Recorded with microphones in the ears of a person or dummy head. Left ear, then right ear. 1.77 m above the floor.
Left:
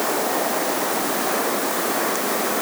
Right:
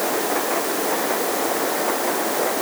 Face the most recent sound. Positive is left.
No sound to turn to.